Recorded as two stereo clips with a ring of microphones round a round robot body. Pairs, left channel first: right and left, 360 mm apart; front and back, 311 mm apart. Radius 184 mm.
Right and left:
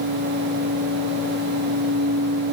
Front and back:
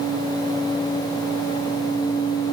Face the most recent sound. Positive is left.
No sound to turn to.